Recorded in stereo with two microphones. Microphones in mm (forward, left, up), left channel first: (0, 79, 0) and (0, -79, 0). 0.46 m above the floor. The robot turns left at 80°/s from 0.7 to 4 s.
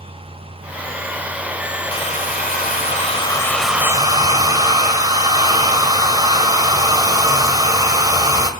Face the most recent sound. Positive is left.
turn(degrees=-30)